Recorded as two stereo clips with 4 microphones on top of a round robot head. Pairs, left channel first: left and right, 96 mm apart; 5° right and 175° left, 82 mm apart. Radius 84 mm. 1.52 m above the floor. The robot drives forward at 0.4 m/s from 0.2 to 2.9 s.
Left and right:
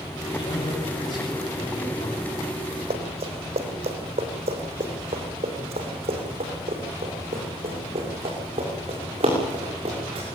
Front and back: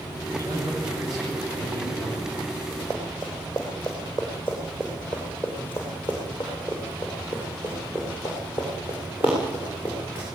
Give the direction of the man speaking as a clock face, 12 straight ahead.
7 o'clock.